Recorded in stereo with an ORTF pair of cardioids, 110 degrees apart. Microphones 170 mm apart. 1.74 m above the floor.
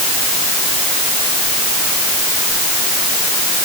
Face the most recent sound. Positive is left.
No sound to turn to.